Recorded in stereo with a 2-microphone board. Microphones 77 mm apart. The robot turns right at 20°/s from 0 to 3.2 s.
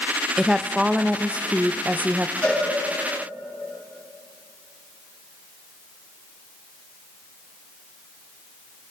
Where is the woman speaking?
5° right (ahead or behind), 0.7 m; by 2.3 s 20° right (ahead or behind), 0.7 m.